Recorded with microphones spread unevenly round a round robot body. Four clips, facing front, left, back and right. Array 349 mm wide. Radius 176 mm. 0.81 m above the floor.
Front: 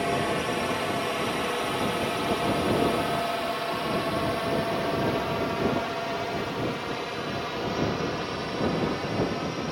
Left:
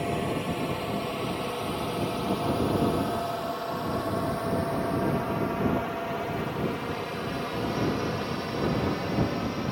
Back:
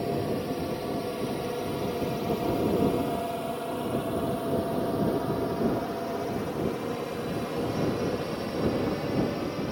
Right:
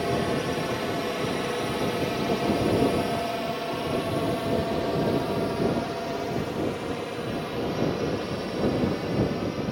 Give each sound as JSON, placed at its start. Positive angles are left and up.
{"t": 0.0, "sound": "a drone", "azimuth_deg": -80}